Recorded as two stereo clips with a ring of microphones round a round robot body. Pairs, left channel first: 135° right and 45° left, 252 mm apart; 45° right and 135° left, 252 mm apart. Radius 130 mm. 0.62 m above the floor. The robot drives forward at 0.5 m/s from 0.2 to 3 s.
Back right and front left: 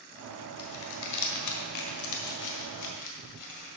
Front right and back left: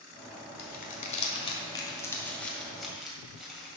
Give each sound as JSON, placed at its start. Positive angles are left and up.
{"t": 0.6, "sound": "crumpling", "azimuth_deg": -100, "distance_m": 1.4}